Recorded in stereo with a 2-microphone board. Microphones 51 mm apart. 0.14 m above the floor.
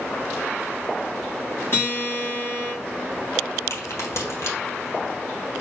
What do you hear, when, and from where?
1.7 s a guitar: 50° left (ahead or behind), 2 m
3.7 s a crack: 70° left (ahead or behind), 1.8 m